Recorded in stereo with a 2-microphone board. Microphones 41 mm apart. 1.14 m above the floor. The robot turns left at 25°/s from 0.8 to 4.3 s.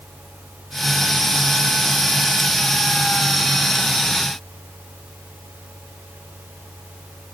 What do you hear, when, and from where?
Only background noise.